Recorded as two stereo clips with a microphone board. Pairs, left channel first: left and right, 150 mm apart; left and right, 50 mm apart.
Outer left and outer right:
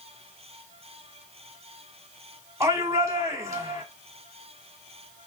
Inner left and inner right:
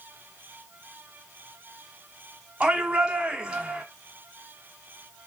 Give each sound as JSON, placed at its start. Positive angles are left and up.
{"t": 2.6, "sound": "a shout", "side_deg": -20, "distance_m": 1.7}